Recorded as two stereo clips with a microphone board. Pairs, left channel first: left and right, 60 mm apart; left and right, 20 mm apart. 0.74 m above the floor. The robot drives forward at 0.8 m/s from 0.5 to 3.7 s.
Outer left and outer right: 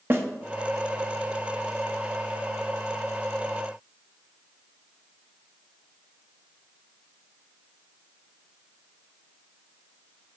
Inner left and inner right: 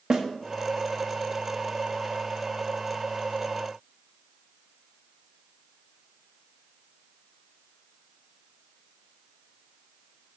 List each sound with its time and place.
0.1 s a snare drum: 40° right (ahead or behind), 1.1 m